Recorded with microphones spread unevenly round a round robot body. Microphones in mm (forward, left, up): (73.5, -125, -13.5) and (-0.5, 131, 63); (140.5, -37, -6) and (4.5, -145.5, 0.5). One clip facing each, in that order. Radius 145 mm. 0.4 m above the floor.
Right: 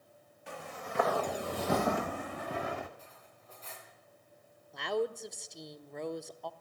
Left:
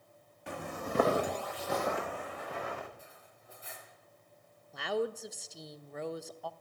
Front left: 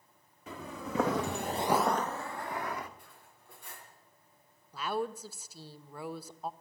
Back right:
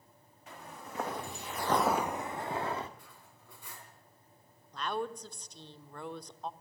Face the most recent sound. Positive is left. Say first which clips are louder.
# even, front left 2 dB
turn(degrees=-25)